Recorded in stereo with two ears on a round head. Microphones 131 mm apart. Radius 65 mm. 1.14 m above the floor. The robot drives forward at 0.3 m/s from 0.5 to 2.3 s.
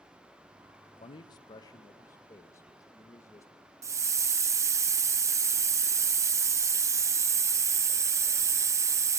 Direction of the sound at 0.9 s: 35° left (ahead or behind).